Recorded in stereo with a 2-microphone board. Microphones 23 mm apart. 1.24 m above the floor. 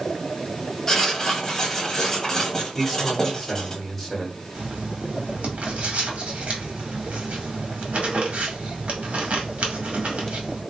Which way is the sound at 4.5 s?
70° right (ahead or behind).